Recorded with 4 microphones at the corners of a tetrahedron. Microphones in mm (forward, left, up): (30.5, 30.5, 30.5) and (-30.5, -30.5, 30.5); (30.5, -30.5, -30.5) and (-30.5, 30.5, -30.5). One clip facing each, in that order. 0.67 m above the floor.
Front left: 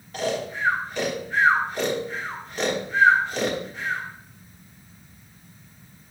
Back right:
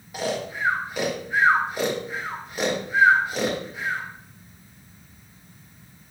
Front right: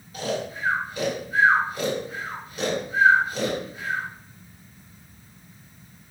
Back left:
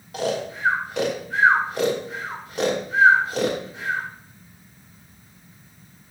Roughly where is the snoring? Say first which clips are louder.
Front left 1 dB, back left 3 dB; behind left.